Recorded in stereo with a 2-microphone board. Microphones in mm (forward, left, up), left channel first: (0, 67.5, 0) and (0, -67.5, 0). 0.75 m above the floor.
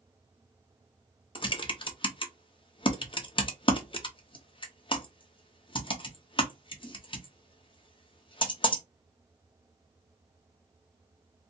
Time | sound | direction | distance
1.4 | typing on a keyboard | 35° left (ahead or behind) | 0.6 m